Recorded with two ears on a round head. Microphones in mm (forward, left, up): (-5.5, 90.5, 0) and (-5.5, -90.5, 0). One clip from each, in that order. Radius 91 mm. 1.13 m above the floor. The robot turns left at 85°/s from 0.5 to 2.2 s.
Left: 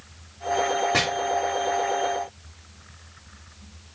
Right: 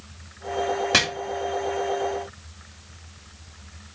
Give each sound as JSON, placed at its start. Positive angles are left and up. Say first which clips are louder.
{"t": 0.9, "sound": "chopping", "louder": "right 5 dB", "side_deg": -70, "distance_m": 2.5}